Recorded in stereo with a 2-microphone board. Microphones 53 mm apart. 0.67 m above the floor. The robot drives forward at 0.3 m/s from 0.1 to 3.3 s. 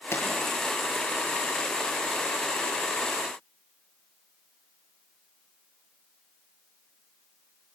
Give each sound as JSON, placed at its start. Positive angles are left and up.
{"t": 0.1, "sound": "a pop", "side_deg": 55, "distance_m": 6.5}